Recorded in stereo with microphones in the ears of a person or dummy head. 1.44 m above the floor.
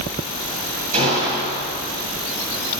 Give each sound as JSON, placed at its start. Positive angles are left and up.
{"t": 0.9, "sound": "a gunshot", "side_deg": -40, "distance_m": 9.0}